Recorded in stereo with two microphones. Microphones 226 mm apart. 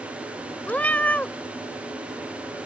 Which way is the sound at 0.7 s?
10° left (ahead or behind).